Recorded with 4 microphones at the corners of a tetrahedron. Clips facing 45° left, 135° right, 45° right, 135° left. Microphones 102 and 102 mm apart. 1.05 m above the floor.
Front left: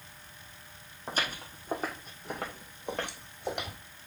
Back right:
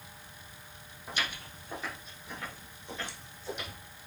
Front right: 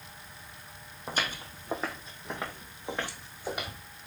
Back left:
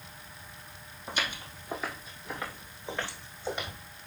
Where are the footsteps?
Straight ahead, 2.5 m; by 3.8 s 35° left, 3 m.